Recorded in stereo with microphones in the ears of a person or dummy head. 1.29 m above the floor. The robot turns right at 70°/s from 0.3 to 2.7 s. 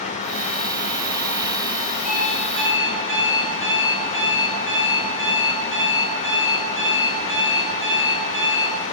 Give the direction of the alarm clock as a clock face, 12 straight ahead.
5 o'clock.